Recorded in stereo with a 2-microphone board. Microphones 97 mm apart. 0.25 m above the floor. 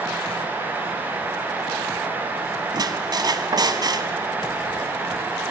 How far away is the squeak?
About 1.2 m.